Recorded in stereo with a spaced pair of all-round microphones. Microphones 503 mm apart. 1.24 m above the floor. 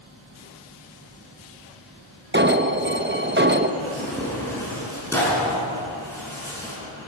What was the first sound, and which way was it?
An alarm, 20° right (ahead or behind).